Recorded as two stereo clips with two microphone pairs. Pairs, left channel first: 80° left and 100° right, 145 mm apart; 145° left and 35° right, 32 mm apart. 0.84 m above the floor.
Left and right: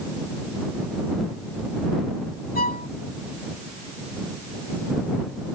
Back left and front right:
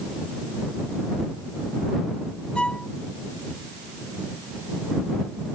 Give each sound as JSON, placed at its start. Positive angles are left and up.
{"t": 2.5, "sound": "a violin", "azimuth_deg": 90}